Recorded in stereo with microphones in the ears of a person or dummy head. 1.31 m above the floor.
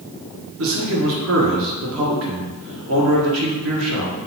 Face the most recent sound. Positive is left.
turn(degrees=-65)  # may be behind; listen again after turning